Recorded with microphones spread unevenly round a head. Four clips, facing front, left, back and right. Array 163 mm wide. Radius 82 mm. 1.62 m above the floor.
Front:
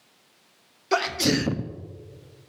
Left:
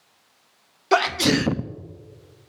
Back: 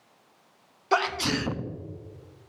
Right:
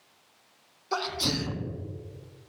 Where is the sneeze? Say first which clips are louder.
Left 11 dB, front 2 dB; 75° left, 0.7 m.